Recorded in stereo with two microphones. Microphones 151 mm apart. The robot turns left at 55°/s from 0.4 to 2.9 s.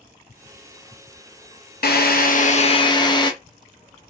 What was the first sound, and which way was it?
A drill, 85° left.